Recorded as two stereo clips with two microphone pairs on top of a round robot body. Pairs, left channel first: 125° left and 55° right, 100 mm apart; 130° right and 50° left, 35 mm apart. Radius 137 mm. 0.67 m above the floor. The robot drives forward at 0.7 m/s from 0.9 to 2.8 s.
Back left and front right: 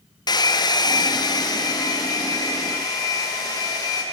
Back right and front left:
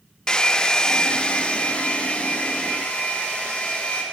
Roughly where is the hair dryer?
Behind.